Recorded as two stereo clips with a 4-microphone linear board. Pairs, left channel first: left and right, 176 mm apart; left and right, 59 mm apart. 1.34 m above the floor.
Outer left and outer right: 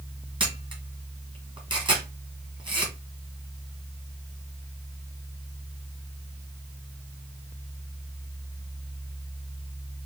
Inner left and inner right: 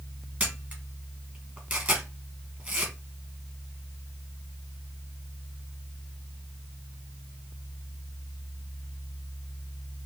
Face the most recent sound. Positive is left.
turn(degrees=-25)  # may be behind; listen again after turning